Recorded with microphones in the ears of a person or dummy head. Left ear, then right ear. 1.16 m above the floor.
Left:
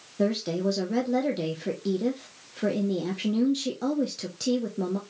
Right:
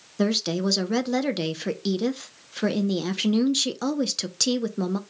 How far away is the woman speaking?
About 0.6 m.